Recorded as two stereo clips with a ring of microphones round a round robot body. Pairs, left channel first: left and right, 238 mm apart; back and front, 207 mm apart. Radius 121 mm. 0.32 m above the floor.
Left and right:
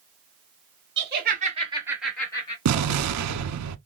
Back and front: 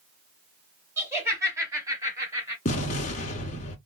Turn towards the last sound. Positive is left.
turn(degrees=-115)